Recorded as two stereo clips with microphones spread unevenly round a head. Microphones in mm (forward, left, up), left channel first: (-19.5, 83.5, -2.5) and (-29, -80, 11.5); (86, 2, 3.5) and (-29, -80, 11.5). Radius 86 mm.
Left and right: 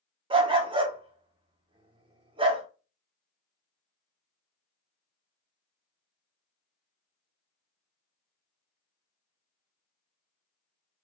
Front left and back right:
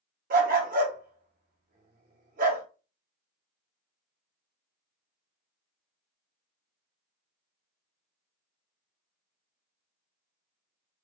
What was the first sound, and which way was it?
A dog barking, 145° right.